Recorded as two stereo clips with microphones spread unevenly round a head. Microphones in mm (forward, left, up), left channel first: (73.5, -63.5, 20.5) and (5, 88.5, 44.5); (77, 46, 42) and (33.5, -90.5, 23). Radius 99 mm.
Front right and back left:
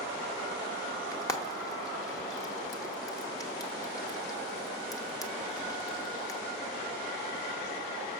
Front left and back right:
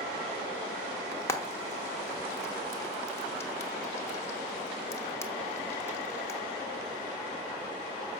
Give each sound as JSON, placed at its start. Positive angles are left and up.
{"t": 1.1, "sound": "frying", "azimuth_deg": 5, "distance_m": 1.4}